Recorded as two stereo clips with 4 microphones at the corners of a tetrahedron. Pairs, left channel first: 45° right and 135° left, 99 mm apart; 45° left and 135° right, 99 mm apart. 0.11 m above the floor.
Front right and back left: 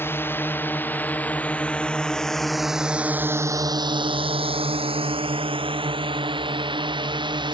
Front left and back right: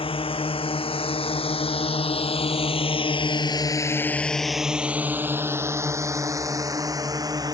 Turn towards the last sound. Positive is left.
turn(degrees=175)